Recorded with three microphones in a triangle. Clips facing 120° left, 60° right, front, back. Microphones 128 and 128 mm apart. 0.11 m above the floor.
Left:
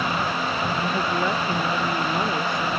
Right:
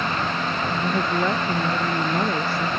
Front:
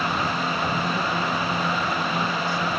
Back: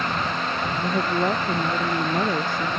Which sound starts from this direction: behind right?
A woman speaking, at 0.8 s.